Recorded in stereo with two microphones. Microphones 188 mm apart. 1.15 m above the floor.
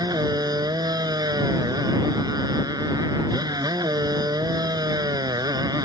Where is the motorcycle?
20° right (ahead or behind).